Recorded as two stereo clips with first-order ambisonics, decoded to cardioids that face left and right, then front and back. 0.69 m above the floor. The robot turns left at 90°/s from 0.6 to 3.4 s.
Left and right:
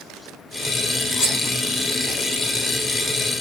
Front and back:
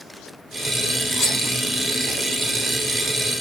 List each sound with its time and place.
1.2 s cutlery clinking: 65° left, 1.8 m; by 1.4 s 45° left, 1.8 m